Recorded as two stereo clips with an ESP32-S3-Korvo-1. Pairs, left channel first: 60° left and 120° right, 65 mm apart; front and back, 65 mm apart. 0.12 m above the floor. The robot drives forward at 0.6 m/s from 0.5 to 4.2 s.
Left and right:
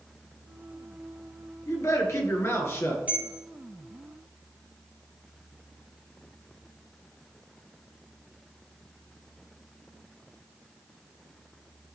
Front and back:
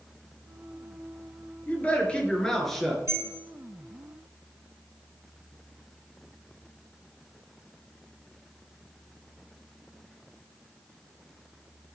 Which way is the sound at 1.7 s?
55° left.